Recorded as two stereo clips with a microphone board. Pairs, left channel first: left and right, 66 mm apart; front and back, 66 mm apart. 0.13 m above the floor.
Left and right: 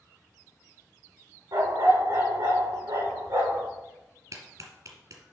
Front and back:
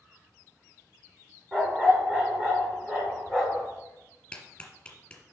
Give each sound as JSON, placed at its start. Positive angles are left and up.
{"t": 1.5, "sound": "a dog barking", "azimuth_deg": -110, "distance_m": 4.0}
{"t": 4.3, "sound": "a clap", "azimuth_deg": -75, "distance_m": 1.8}